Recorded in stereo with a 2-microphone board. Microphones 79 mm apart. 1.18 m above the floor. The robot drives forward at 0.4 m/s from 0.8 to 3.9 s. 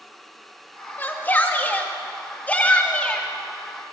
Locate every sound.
1.0 s a shout: 25° left (ahead or behind), 2 m; by 3.3 s 15° left (ahead or behind), 3 m